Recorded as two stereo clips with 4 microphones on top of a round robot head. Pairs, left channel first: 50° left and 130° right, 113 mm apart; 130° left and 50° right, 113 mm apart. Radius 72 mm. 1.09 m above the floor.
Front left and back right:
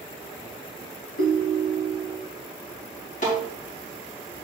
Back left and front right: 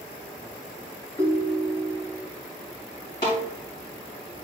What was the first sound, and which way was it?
A ringtone, 55° left.